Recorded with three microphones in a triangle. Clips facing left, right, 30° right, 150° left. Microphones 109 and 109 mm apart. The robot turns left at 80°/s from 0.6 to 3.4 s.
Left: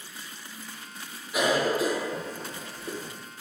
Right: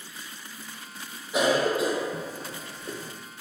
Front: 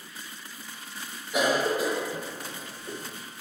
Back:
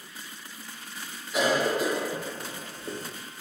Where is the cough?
70° right, 1.3 m; by 3.1 s 150° left, 1.3 m.